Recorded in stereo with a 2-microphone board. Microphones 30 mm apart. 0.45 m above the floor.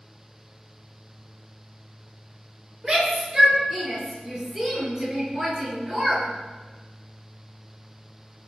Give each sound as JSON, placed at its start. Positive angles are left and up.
{"t": 2.8, "sound": "a shout", "side_deg": -30, "distance_m": 8.0}